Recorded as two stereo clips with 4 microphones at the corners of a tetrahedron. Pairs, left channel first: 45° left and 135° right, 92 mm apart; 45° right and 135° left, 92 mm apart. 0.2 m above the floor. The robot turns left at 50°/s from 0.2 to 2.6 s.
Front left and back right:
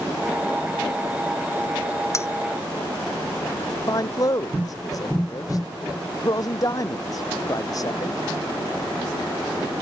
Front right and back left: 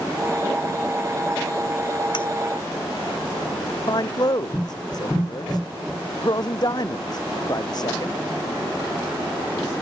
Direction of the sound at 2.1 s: 10° right.